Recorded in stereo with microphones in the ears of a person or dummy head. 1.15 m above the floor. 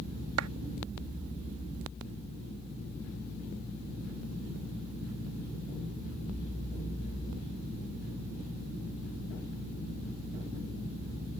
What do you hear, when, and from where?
0.4 s a clap: 90° right